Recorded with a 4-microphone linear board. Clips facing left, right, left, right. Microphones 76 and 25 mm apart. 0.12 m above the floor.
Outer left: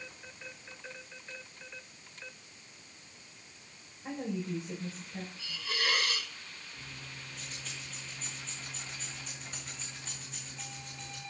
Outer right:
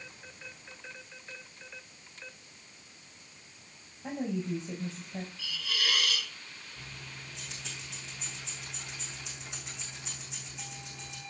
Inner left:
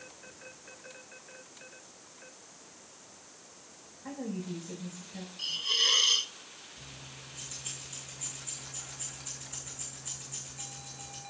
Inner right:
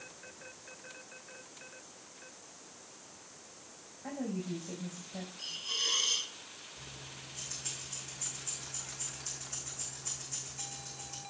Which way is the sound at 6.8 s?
80° right.